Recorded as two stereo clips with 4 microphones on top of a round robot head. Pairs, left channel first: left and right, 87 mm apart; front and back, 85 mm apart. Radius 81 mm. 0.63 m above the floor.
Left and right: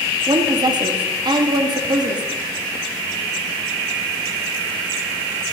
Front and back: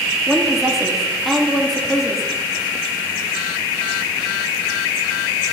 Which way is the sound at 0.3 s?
90° right.